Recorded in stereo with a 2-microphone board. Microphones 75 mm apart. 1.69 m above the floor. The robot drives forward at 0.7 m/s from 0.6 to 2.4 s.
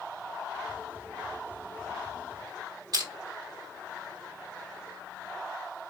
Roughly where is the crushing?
Right.